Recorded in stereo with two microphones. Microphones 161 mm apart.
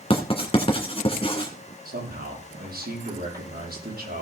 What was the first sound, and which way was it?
Writing, 35° left (ahead or behind).